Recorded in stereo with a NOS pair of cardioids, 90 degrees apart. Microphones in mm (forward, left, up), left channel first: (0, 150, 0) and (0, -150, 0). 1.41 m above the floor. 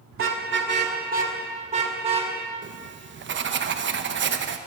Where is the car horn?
45° right, 2 m; by 2.3 s 20° right, 3.5 m.